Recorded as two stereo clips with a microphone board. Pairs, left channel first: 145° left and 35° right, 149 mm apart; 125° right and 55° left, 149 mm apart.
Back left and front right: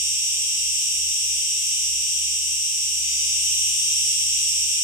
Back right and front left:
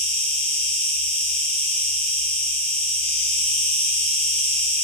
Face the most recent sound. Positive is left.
turn(degrees=30)